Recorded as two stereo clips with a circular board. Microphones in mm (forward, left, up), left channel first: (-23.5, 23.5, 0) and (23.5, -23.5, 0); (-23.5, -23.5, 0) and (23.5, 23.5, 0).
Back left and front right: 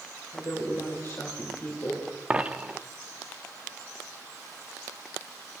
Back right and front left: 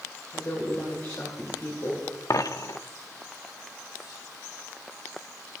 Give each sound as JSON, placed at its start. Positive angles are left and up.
{"t": 0.3, "sound": "a woman speaking", "azimuth_deg": -175, "distance_m": 3.0}
{"t": 2.3, "sound": "a dropped coin", "azimuth_deg": -115, "distance_m": 0.5}